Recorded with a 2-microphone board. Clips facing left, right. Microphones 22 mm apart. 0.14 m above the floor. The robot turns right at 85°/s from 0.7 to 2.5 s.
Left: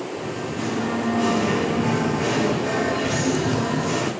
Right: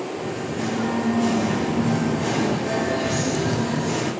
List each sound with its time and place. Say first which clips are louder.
0.1 s singing: right 1 dB; 10° right, 7 m; by 4.1 s 145° left, 7 m